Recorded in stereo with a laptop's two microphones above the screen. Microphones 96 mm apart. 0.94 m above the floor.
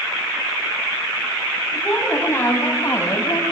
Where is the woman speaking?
15° left (ahead or behind), 7 m; by 3.4 s 35° left (ahead or behind), 6.5 m.